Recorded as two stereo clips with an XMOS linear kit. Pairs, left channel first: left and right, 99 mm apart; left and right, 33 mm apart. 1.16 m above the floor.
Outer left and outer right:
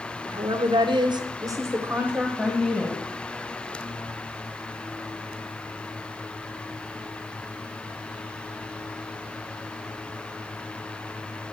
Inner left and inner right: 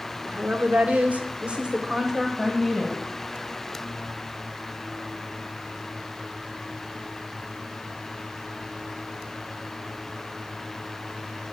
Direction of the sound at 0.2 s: 50° right (ahead or behind).